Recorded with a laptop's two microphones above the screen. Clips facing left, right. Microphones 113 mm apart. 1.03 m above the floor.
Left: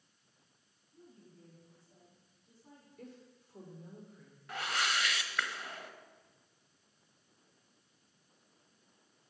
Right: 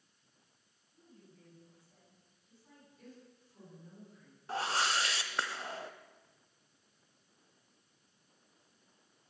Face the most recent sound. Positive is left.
turn(degrees=-30)  # may be behind; listen again after turning